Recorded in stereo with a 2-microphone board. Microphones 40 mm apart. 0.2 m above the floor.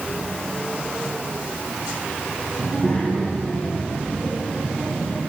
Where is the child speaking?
50° left (ahead or behind), 3 m.